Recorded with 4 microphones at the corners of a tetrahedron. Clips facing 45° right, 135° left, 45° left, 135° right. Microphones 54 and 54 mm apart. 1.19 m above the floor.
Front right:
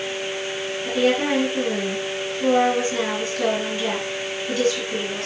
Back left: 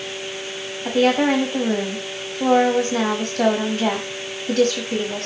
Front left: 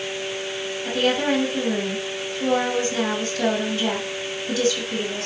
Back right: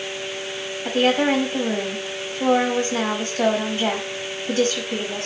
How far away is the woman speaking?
About 6 m.